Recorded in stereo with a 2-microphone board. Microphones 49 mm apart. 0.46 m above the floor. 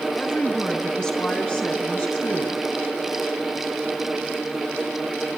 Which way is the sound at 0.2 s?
20° left (ahead or behind).